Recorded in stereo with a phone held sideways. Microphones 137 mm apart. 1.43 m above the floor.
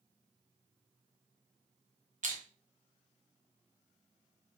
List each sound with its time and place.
2.2 s crushing: 65° right (ahead or behind), 0.7 m